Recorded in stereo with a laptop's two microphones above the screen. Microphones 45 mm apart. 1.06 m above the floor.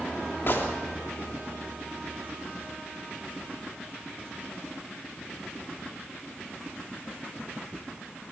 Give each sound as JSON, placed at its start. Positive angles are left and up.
{"t": 0.5, "sound": "a gunshot", "side_deg": 55, "distance_m": 3.0}